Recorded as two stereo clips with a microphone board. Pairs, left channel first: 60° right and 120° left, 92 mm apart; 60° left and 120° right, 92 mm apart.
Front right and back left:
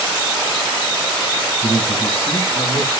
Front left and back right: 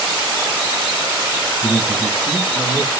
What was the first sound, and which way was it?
A man speaking, 40° right.